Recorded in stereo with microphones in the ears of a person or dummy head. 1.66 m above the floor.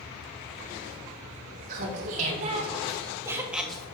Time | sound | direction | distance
1.7 | laughter | 50° right (ahead or behind) | 2.5 m